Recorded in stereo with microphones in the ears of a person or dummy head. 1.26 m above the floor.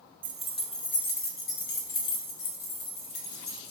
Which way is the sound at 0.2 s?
10° right (ahead or behind).